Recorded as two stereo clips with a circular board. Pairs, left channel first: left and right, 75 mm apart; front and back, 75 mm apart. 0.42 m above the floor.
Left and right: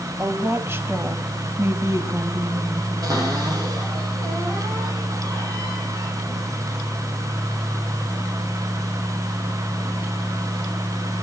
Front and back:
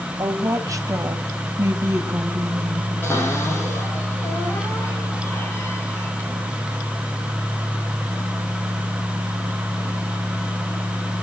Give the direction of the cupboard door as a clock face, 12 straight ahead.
2 o'clock.